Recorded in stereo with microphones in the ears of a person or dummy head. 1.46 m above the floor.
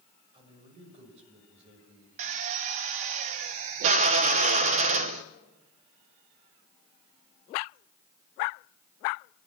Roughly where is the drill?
Right.